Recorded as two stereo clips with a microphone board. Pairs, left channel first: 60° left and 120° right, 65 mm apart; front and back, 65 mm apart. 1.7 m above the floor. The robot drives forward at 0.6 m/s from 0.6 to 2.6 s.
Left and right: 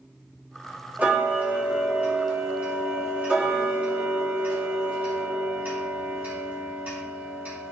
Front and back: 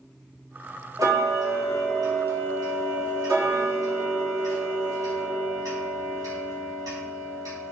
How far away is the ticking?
About 2 m.